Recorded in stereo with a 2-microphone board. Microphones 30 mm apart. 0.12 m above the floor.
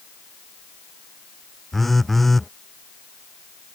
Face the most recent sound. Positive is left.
turn(degrees=10)  # may be behind; listen again after turning